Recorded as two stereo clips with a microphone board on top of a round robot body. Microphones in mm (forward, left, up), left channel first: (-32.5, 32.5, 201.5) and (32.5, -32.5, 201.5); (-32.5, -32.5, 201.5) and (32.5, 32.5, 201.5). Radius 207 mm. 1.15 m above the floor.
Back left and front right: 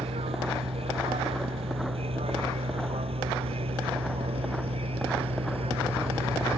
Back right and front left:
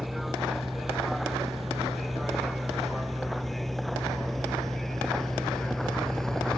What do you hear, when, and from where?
0.0 s a vehicle: 45° right; by 6.6 s 50° right